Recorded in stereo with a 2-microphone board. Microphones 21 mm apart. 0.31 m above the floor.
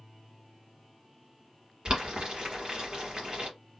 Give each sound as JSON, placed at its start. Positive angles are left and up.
{"t": 1.9, "sound": "boiling", "side_deg": -45, "distance_m": 1.2}